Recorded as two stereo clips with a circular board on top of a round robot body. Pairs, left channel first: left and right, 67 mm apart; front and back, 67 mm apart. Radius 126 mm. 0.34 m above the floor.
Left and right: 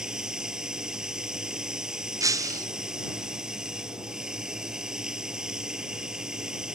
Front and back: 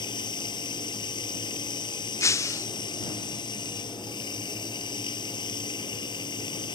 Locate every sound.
0.0 s running water: 10° right
2.2 s breaking glass: 50° right